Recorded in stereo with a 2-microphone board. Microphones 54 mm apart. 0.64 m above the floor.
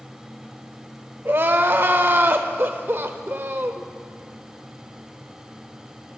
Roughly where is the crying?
Right.